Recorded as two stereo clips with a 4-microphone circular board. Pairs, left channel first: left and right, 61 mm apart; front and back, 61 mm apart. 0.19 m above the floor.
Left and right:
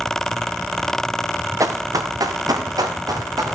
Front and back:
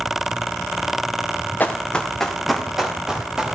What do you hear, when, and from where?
1.6 s running footsteps: 60° right, 1.3 m; by 3.5 s 105° right, 3 m